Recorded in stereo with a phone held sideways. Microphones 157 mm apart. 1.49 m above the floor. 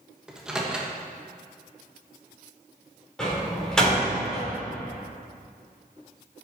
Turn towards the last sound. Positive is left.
turn(degrees=5)  # may be behind; listen again after turning